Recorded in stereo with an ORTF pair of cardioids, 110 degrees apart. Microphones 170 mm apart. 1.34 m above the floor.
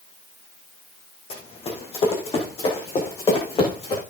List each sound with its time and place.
1.3 s running footsteps: 40° left, 4.5 m